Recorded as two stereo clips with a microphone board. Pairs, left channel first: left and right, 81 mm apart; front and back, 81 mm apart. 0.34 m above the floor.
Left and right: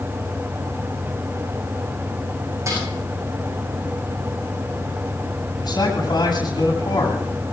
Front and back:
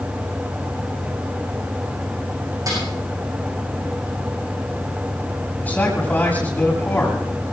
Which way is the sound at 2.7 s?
140° right.